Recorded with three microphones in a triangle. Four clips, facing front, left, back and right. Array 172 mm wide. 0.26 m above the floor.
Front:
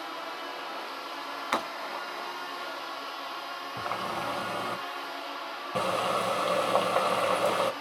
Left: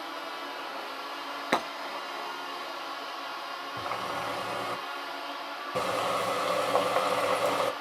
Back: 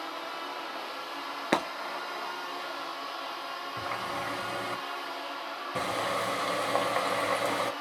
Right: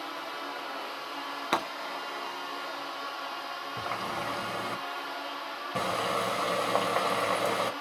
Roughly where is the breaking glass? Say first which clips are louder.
Left 1 dB, back 3 dB; behind.